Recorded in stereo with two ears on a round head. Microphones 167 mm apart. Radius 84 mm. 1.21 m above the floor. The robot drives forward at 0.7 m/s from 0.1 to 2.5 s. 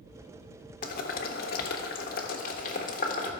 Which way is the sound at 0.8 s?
50° left (ahead or behind).